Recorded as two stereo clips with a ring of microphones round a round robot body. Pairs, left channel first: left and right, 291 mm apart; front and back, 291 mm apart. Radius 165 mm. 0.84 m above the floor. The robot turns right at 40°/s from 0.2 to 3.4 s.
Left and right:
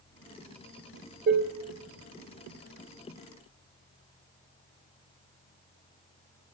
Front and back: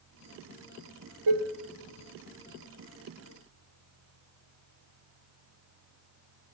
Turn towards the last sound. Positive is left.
turn(degrees=-65)